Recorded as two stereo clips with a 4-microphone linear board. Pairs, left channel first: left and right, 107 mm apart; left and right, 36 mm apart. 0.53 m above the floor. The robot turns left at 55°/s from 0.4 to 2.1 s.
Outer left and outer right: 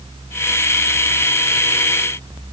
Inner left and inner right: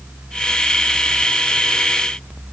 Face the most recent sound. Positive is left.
No sound to turn to.